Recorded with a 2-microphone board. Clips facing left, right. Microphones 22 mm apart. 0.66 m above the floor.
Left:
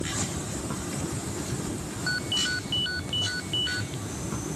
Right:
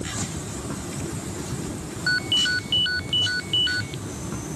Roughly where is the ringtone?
Right.